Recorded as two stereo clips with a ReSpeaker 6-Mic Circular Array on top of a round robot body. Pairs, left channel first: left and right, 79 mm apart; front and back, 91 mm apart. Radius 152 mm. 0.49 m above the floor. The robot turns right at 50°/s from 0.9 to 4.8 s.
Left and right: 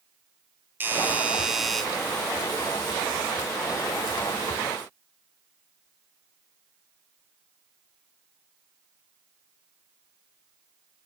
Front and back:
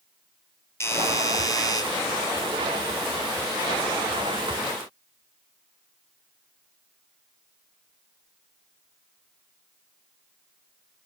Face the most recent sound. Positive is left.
turn(degrees=155)